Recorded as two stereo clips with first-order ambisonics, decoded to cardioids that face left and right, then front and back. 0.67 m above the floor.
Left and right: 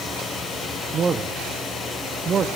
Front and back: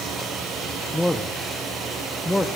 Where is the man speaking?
75° right, 0.5 m.